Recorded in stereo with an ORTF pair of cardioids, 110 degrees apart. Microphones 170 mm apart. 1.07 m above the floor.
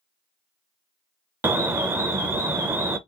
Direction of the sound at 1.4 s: 15° right.